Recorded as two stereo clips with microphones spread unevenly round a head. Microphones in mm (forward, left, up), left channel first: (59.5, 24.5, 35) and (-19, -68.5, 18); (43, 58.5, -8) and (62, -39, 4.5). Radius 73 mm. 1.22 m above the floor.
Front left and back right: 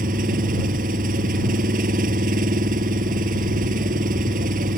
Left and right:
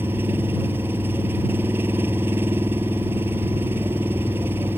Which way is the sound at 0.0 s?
155° right.